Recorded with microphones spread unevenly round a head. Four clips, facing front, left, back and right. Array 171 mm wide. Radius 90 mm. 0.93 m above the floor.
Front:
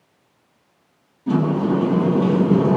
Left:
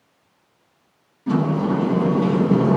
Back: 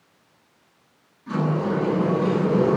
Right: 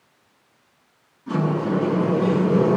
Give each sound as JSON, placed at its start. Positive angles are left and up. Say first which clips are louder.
{"t": 1.3, "sound": "a sliding door", "louder": "left 2 dB, front 5 dB", "azimuth_deg": 40, "distance_m": 10.0}